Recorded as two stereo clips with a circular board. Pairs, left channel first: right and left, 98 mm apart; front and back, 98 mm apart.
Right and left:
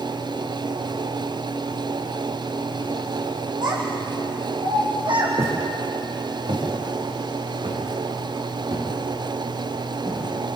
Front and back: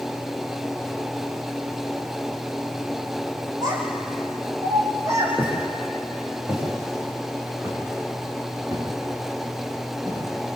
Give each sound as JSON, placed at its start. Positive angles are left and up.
{"t": 3.6, "sound": "a child speaking", "azimuth_deg": 130, "distance_m": 6.0}
{"t": 5.4, "sound": "footsteps", "azimuth_deg": 105, "distance_m": 6.5}